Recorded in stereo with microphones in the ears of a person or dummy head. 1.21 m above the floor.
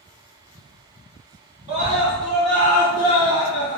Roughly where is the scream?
Right.